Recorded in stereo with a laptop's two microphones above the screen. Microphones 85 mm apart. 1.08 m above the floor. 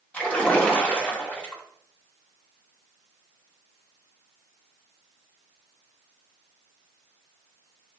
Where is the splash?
20° left (ahead or behind), 2.5 m.